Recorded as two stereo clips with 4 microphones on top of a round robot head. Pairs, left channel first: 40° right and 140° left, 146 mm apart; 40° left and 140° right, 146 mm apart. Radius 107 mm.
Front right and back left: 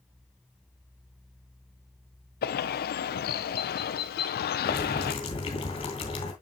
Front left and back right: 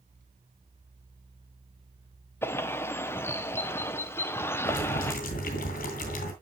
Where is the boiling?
15° left, 2.0 m.